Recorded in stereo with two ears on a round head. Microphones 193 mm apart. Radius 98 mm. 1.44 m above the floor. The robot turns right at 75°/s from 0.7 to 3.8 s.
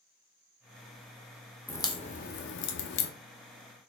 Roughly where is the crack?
Centre.